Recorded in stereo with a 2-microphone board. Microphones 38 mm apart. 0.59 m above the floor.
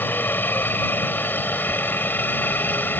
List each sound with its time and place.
0.0 s a helicopter: 60° left (ahead or behind)
1.7 s a zipper: 35° left (ahead or behind)